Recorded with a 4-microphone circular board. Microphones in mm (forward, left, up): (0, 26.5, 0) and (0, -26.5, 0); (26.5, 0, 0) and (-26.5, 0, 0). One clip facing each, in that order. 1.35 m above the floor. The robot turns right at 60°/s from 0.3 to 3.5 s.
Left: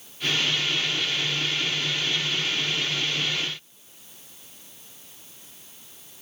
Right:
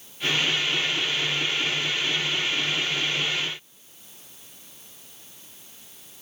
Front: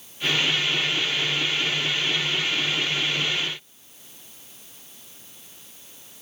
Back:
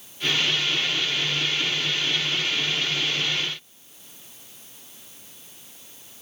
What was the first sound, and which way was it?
Only background noise.